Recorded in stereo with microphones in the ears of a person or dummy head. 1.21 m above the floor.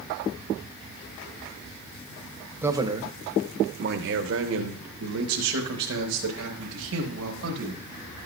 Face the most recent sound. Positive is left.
turn(degrees=-65)  # may be behind; listen again after turning